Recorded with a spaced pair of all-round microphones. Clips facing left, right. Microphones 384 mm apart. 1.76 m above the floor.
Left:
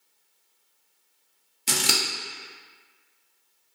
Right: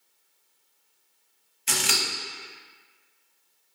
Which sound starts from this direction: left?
Scissors, at 1.7 s.